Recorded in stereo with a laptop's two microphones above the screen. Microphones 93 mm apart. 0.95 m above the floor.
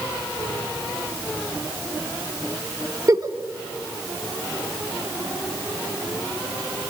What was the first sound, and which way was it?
A giggle, 40° right (ahead or behind).